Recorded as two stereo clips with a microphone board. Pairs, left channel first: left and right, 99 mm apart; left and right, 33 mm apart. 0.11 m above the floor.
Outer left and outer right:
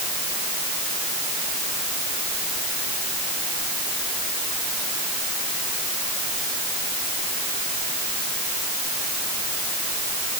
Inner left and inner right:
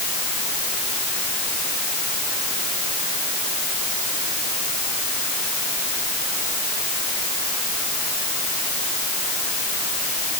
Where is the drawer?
No drawer in this recording.